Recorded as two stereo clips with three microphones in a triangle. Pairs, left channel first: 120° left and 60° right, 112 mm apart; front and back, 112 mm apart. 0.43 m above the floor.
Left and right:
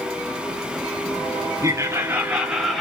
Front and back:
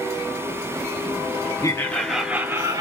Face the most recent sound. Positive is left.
turn(degrees=-150)